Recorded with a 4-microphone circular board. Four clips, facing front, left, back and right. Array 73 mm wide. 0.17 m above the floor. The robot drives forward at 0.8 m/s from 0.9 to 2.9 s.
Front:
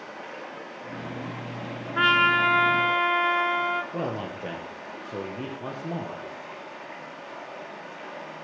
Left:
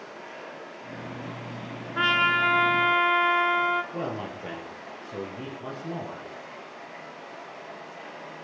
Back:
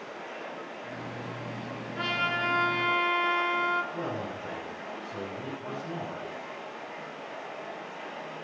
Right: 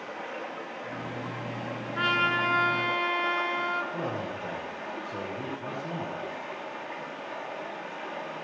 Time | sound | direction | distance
0.0 | running water | 70° right | 8 m
1.9 | a trumpet | 15° left | 1.2 m
3.9 | a man speaking | 10° left | 3.5 m